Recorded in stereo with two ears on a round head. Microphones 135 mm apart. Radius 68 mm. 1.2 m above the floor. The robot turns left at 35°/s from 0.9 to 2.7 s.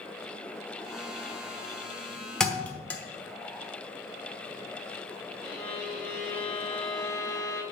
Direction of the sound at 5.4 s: 5° left (ahead or behind).